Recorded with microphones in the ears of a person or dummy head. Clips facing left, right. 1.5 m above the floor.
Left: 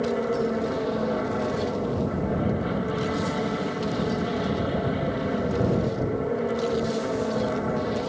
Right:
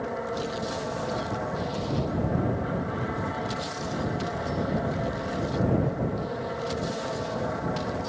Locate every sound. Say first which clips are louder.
0.0 s an aircraft: left 7 dB; 40° left (ahead or behind)